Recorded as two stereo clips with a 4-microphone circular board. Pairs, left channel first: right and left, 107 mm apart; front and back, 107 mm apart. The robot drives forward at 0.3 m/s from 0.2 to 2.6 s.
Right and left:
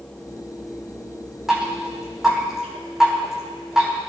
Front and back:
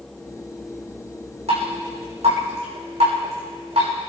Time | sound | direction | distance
1.5 | dripping | 175° left | 7 m